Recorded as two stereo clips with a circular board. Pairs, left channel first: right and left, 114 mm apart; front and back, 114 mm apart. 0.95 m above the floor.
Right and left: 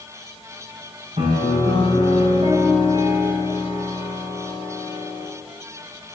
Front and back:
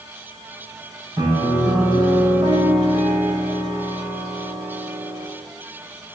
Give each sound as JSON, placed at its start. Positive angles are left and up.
{"t": 1.2, "sound": "a piano", "azimuth_deg": 125, "distance_m": 5.5}